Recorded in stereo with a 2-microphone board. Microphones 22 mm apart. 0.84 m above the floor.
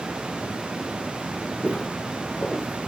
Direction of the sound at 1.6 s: 70° left (ahead or behind).